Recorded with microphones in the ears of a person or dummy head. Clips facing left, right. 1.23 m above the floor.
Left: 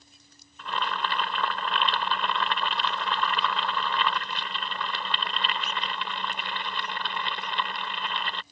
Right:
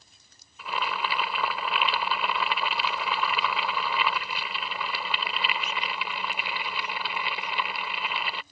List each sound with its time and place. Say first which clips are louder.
0.6 s boiling: even; 10° right (ahead or behind)